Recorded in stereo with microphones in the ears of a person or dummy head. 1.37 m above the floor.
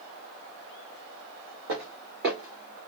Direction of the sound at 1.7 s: 60° right (ahead or behind).